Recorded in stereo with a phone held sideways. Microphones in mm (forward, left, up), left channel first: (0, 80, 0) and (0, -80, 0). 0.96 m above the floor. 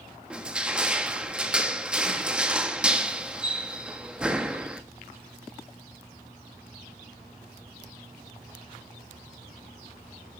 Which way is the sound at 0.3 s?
5° right (ahead or behind).